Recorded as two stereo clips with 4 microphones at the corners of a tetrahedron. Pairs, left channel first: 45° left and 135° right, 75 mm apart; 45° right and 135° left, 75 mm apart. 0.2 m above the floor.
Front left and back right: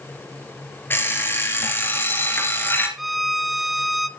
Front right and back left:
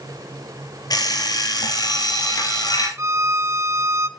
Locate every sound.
0.9 s an alarm clock: 15° right, 2 m
3.0 s a violin: 140° left, 0.6 m